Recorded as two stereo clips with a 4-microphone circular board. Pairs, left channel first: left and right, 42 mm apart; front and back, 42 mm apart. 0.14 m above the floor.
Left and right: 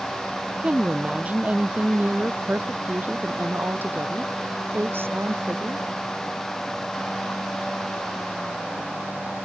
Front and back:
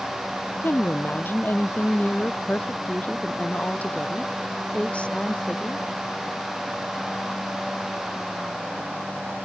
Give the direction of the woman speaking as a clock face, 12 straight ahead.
1 o'clock.